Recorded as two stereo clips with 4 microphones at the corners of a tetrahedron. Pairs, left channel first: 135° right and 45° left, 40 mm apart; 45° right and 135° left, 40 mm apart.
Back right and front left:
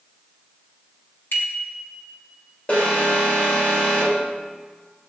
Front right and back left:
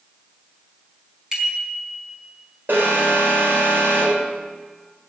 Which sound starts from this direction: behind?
An alarm, at 2.7 s.